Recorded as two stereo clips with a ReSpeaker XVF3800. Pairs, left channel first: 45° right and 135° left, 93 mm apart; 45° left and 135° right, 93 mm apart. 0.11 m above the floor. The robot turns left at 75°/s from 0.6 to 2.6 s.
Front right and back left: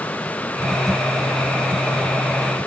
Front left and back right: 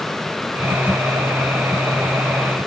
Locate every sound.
Only background noise.